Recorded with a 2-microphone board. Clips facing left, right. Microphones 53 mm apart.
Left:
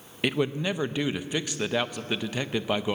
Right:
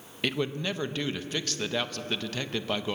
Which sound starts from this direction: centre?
A man speaking, at 0.2 s.